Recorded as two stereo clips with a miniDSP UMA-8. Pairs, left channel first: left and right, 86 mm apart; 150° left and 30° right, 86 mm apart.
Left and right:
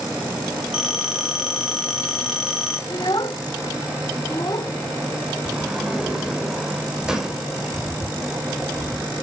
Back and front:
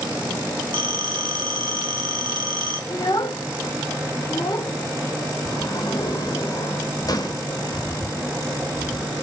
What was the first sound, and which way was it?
A phone ringing, 5° right.